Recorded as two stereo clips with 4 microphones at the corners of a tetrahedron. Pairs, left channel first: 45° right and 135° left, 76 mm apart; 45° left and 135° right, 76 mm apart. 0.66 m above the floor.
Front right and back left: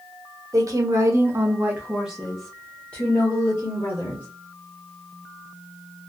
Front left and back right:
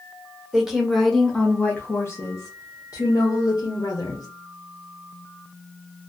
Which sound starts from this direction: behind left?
A woman speaking, at 0.5 s.